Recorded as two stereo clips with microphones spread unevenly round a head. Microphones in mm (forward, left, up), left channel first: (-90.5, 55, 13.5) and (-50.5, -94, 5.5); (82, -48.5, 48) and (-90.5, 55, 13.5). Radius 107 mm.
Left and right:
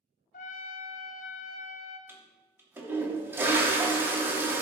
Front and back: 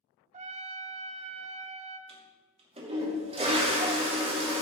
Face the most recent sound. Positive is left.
turn(degrees=-150)